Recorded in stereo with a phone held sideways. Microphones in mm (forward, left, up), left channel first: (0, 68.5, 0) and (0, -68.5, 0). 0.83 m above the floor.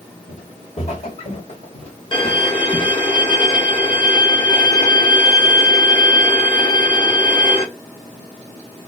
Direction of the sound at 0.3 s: 50° left (ahead or behind).